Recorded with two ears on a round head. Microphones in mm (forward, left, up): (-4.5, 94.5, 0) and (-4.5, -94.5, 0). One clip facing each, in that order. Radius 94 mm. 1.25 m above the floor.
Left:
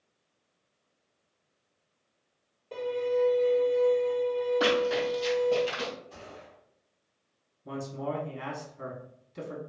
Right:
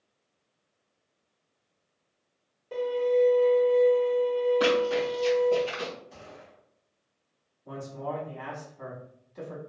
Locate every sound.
2.7 s a violin: 10° right (ahead or behind), 1.4 m
4.6 s running footsteps: 5° right (ahead or behind), 1.8 m; by 5.9 s 25° left (ahead or behind), 1.8 m
6.1 s a gunshot: 5° right (ahead or behind), 1.0 m
7.7 s a man speaking: 30° left (ahead or behind), 0.8 m